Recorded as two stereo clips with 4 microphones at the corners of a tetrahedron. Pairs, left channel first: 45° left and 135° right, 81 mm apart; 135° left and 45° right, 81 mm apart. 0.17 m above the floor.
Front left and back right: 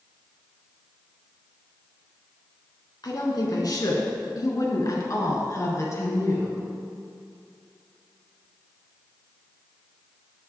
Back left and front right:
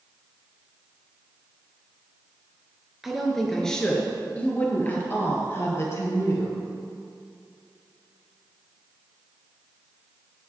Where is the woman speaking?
40° left, 2.0 m; by 6.6 s 95° left, 3 m.